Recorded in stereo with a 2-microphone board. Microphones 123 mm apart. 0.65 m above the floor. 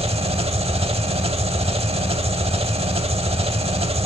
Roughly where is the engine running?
Right.